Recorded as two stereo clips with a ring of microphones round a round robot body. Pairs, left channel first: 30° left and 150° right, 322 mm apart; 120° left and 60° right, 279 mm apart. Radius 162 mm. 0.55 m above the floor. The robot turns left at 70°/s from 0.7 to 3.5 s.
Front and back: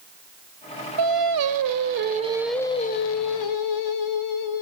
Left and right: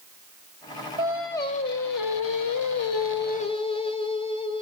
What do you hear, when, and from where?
1.0 s singing: 135° right, 1.7 m; by 4.6 s 50° left, 1.7 m